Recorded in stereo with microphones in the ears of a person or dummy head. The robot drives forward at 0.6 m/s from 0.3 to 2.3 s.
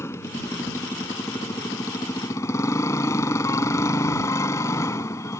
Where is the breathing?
I don't hear breathing.